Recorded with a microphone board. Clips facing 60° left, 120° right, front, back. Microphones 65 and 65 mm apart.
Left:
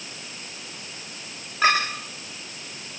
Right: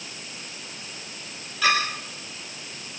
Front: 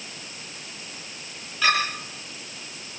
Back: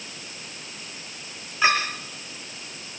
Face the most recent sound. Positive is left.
turn(degrees=110)